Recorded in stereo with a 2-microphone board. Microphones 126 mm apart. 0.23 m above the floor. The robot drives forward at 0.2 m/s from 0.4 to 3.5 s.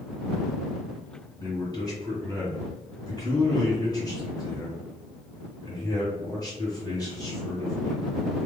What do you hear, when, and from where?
1.4 s a man speaking: 30° left (ahead or behind), 1.6 m